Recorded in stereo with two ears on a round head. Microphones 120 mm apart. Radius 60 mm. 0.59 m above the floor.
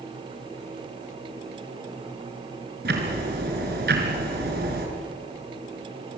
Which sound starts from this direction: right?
Ticking, at 2.9 s.